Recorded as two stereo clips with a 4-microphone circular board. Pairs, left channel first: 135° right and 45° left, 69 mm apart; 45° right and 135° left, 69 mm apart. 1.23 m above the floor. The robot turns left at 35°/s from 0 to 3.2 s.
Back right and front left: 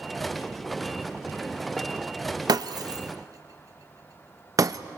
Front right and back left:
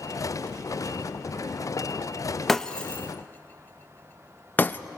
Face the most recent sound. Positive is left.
turn(degrees=15)